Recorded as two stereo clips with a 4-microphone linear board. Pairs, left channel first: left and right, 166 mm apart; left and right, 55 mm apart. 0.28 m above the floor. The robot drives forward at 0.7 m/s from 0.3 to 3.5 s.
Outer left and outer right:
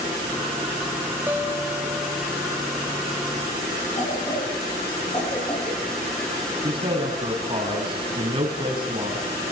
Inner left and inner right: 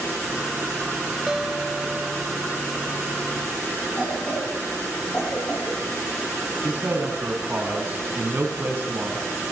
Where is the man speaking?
30° right (ahead or behind), 3 m.